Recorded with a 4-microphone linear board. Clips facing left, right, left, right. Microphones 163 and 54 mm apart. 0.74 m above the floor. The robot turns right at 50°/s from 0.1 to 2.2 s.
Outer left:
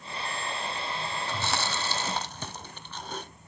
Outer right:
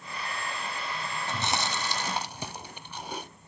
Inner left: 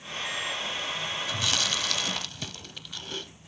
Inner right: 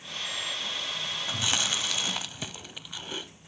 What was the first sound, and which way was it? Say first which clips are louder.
Chewing: outer right 1 dB, inner right 1 dB; 20° right (ahead or behind).